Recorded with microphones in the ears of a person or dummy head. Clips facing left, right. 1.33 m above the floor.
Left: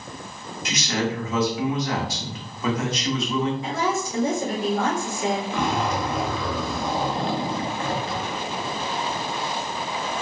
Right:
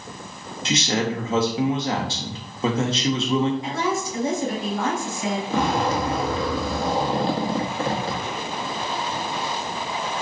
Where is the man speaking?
25° right (ahead or behind), 0.7 m.